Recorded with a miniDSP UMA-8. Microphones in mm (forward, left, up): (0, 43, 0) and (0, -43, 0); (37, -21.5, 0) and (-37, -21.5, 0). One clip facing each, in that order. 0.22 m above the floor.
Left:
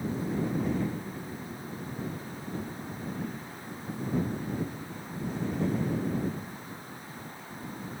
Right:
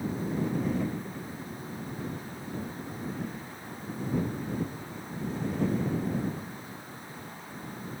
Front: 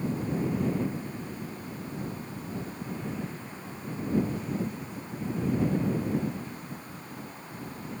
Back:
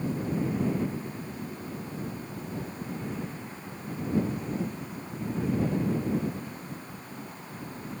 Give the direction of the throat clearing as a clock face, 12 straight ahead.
I don't hear throat clearing.